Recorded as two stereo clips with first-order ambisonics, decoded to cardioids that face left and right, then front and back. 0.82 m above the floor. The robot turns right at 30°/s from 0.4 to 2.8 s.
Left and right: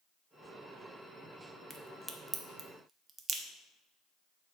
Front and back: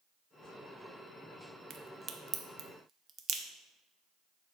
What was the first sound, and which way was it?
A crack, 175° left.